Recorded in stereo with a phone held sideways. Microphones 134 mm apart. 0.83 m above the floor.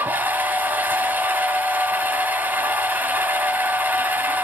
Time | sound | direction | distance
0.0 | a machine running | 15° right (ahead or behind) | 3.5 m